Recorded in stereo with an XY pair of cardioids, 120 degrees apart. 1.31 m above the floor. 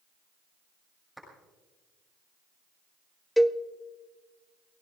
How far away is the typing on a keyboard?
No typing on a keyboard in this recording.